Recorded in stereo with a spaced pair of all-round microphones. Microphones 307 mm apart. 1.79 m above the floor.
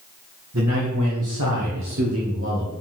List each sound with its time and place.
0.5 s a man speaking: 55° right (ahead or behind), 1.7 m; by 2.7 s 35° right (ahead or behind), 2.0 m